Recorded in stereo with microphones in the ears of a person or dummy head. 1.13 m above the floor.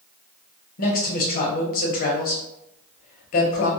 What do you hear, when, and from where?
0.8 s a man speaking: 50° left (ahead or behind), 0.7 m